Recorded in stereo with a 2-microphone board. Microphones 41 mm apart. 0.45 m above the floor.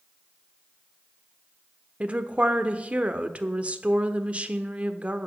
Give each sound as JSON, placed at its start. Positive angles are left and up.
{"t": 2.0, "sound": "a woman speaking", "side_deg": -30, "distance_m": 1.0}